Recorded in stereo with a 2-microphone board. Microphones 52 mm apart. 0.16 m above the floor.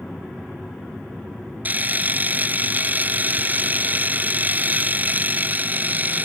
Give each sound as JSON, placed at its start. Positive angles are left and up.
{"t": 1.6, "sound": "a camera shutter", "side_deg": -35}